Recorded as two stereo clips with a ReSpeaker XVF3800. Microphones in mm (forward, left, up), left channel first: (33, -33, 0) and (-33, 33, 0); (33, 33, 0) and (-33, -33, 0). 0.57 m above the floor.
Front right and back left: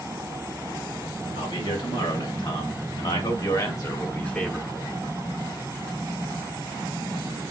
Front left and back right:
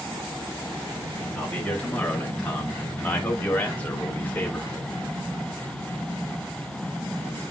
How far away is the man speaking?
About 3 m.